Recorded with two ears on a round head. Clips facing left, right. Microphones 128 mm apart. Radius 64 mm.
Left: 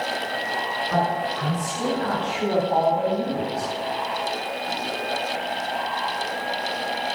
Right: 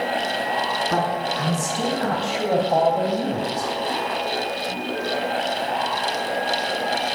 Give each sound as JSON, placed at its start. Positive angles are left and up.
{"t": 0.9, "sound": "a man speaking", "side_deg": -55, "distance_m": 5.0}